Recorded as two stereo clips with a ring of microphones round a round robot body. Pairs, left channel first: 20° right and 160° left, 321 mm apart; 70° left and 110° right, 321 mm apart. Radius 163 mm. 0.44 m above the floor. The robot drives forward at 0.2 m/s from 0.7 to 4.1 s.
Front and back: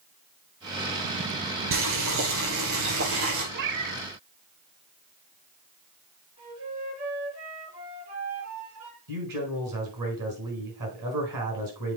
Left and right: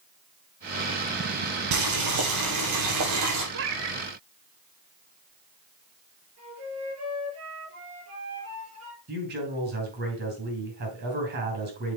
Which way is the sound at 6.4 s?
160° right.